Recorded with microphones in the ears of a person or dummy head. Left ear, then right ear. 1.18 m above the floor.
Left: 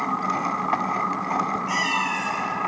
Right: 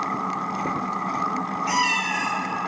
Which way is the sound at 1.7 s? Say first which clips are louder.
Right 5 dB; 30° right (ahead or behind).